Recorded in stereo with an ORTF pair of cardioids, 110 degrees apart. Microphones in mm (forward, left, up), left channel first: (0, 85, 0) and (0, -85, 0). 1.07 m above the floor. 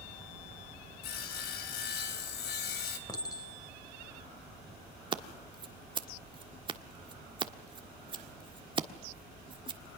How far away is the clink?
About 3.5 m.